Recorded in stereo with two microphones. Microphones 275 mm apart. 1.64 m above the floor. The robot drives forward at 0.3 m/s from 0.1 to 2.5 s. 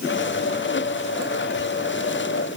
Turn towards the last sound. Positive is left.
No sound to turn to.